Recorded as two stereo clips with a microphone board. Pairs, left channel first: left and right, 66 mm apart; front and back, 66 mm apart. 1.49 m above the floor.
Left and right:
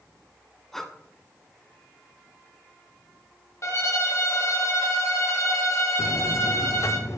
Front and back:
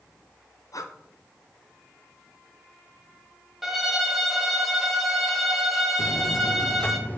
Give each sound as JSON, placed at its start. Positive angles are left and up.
{"t": 0.7, "sound": "breathing", "azimuth_deg": 5, "distance_m": 0.7}
{"t": 3.6, "sound": "a violin", "azimuth_deg": 95, "distance_m": 0.8}
{"t": 6.0, "sound": "a buzzer", "azimuth_deg": 55, "distance_m": 0.6}